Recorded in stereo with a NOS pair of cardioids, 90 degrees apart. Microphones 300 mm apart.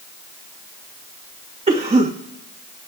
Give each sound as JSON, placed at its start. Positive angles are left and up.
{"t": 1.7, "sound": "a cough", "azimuth_deg": -20, "distance_m": 1.4}